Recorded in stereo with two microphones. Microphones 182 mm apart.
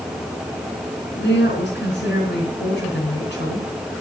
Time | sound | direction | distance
1.1 | a woman speaking | 75° left (ahead or behind) | 4 m